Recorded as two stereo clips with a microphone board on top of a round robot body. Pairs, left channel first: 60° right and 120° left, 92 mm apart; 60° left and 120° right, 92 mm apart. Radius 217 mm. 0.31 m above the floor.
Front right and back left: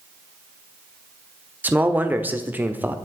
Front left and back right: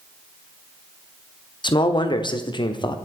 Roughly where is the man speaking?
Ahead left.